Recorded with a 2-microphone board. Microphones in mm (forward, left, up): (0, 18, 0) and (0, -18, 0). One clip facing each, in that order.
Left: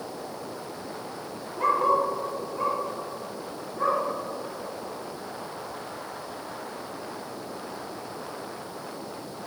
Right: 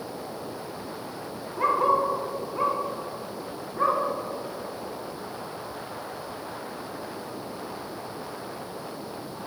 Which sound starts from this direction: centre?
A dog barking, at 1.6 s.